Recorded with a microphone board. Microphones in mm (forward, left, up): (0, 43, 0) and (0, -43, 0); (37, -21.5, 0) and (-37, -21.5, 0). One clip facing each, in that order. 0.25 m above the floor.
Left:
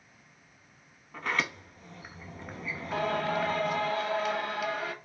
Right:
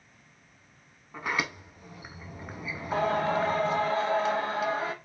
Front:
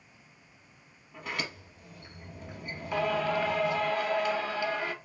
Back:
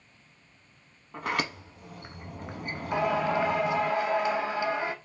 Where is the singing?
125° right, 0.6 m.